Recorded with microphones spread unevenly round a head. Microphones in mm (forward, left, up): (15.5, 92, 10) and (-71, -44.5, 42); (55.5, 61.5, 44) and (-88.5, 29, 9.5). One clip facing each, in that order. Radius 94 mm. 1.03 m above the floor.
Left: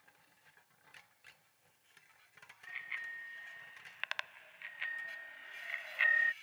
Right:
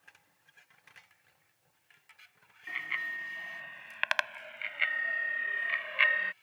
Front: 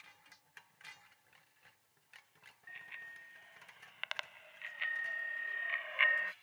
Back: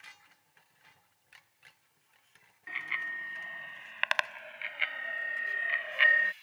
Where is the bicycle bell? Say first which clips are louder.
Right 10 dB, back 15 dB; 140° right; by 6.3 s 100° right.